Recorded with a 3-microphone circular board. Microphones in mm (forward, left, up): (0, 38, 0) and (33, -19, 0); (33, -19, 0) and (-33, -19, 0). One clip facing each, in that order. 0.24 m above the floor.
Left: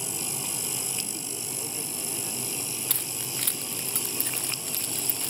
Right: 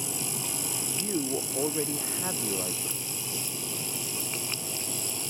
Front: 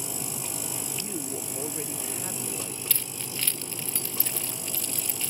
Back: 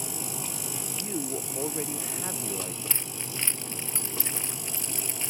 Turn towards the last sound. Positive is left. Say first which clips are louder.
# left 1 dB, even
turn(degrees=115)